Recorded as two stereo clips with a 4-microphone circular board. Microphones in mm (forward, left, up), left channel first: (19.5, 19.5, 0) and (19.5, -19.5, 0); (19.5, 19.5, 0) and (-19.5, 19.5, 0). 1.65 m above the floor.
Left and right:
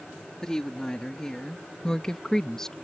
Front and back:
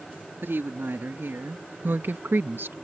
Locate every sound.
0.4 s a woman speaking: 165° left